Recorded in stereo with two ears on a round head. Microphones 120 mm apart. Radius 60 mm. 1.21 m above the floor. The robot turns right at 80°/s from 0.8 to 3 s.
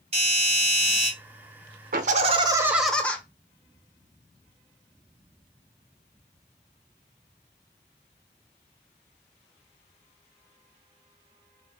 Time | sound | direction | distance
0.1 | a doorbell | 50° right (ahead or behind) | 1.7 m
1.9 | laughter | 75° right | 0.7 m